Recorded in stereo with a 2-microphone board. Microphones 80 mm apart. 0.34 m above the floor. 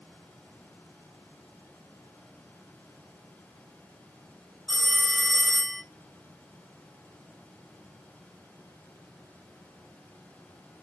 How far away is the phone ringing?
About 0.9 m.